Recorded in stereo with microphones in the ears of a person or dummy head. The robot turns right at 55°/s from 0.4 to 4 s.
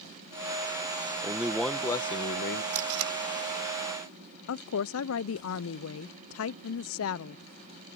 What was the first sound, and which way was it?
A man speaking, 15° right.